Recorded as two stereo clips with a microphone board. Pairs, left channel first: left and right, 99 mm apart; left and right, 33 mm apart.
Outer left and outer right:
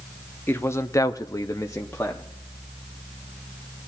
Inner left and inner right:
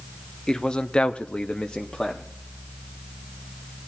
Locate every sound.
0.5 s a man speaking: 20° left (ahead or behind), 0.8 m; by 2.2 s 15° left (ahead or behind), 0.9 m